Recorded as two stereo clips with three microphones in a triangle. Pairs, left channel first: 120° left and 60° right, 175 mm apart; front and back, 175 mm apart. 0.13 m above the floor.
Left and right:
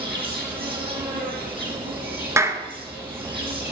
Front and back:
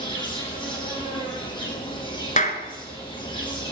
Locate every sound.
0.0 s an insect: 60° right, 3.5 m
2.4 s a clap: 5° left, 1.4 m